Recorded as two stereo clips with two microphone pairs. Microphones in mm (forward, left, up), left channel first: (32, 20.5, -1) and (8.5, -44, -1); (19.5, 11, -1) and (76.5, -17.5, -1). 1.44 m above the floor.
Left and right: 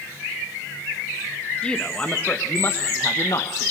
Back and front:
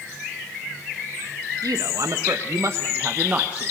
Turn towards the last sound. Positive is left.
turn(degrees=50)